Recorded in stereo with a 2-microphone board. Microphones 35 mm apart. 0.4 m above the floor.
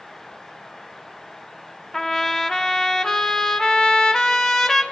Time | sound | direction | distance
1.9 | a trumpet | 20° left (ahead or behind) | 1.6 m